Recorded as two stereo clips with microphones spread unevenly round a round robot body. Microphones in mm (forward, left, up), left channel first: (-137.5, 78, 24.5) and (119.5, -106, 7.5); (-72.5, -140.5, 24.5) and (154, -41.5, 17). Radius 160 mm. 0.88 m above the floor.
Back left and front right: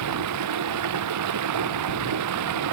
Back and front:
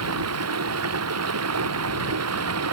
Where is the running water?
5° left.